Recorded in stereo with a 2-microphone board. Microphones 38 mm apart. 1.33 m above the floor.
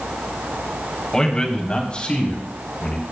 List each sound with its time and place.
1.1 s a man speaking: 20° left (ahead or behind), 3 m; by 3.0 s 35° left (ahead or behind), 4.5 m